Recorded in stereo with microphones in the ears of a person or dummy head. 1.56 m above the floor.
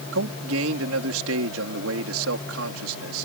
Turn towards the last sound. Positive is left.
turn(degrees=-80)